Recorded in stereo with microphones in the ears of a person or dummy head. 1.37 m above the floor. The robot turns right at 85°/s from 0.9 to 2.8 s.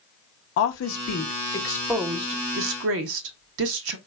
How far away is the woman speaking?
About 0.8 m.